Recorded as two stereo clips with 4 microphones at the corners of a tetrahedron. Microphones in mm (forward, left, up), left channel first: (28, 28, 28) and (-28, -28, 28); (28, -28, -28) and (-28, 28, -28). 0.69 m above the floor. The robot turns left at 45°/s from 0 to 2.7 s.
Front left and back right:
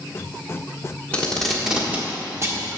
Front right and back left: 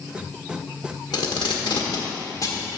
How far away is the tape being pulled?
About 1.3 m.